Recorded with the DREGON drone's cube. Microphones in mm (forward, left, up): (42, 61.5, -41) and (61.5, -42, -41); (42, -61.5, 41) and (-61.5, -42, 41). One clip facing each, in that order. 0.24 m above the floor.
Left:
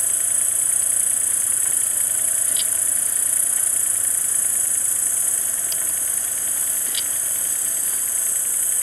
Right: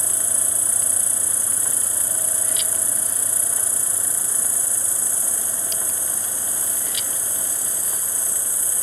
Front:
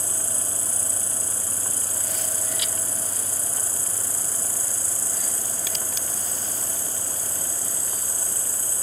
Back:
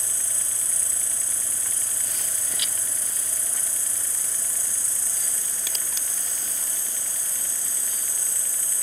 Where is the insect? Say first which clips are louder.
Right 4 dB, front 7 dB; 75° left, 1.7 m.